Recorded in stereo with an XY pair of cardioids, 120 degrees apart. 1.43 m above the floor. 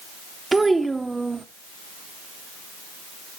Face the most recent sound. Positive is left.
turn(degrees=-15)